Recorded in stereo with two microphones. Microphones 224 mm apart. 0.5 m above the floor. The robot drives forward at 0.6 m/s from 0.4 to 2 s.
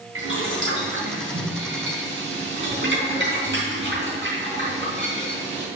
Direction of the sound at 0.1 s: 70° right (ahead or behind).